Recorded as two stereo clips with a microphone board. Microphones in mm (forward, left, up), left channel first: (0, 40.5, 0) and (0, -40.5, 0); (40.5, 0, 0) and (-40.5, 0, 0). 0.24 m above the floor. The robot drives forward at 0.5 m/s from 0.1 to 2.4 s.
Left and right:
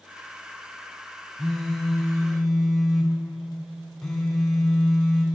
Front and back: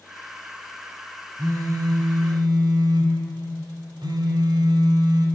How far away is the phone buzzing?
About 0.9 m.